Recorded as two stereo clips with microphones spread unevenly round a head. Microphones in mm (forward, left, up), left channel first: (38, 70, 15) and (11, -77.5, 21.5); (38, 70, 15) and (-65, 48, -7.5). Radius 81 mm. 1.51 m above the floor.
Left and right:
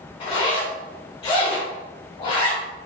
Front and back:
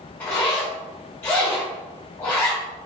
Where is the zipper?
50° left, 1.4 m.